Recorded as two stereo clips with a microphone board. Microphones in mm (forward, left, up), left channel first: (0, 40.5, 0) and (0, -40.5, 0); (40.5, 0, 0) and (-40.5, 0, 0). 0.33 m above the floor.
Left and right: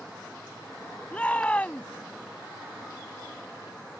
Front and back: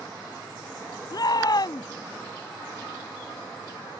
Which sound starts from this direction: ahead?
A shout, at 1.1 s.